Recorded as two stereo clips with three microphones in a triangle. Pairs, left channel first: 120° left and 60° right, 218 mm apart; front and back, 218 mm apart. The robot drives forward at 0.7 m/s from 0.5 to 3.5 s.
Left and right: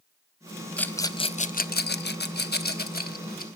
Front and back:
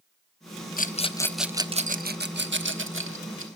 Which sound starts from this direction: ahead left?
A rattle, at 0.8 s.